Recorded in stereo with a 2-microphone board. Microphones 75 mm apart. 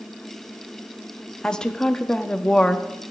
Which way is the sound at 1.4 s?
10° left (ahead or behind).